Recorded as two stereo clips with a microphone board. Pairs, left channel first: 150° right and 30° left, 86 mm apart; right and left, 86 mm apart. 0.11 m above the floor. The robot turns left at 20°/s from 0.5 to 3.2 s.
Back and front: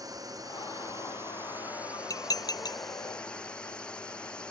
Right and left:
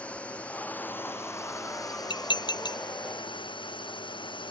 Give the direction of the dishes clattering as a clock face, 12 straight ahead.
4 o'clock.